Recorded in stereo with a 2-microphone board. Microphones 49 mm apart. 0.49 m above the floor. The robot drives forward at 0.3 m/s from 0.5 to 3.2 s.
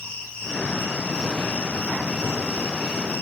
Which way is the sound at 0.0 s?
15° left (ahead or behind).